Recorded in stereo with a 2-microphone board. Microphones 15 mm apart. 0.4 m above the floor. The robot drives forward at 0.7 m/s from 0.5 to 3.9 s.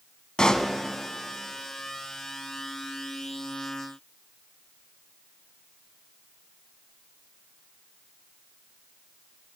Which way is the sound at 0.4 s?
75° left (ahead or behind).